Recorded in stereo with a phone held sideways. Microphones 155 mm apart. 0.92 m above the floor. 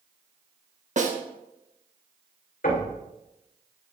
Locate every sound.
1.0 s a snare drum: 50° right (ahead or behind), 0.9 m
2.6 s knocking: 75° left (ahead or behind), 2.5 m